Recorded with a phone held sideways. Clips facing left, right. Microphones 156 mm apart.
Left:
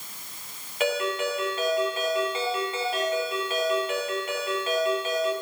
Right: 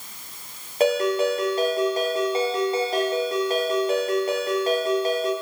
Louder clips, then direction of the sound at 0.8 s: Right 6 dB; 40° right (ahead or behind).